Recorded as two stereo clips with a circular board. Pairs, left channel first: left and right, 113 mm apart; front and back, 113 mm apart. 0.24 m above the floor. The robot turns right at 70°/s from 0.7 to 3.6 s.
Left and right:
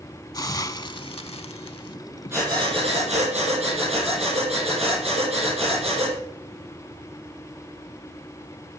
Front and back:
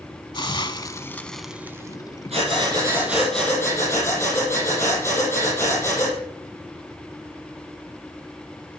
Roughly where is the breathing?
Behind right.